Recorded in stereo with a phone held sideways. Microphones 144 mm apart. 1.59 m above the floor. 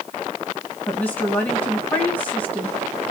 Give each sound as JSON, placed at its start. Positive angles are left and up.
{"t": 0.9, "sound": "a woman speaking", "side_deg": 10, "distance_m": 1.6}